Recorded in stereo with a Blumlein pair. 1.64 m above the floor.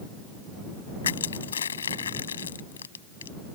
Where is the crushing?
70° left.